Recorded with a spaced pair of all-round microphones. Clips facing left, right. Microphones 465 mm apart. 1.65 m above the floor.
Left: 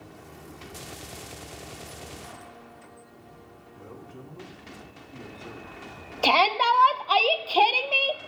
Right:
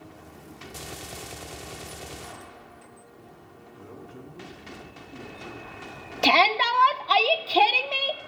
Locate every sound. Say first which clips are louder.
3.7 s a man speaking: right 1 dB; 30° right (ahead or behind), 2 m
6.2 s a shout: right 1 dB; 40° right (ahead or behind), 0.5 m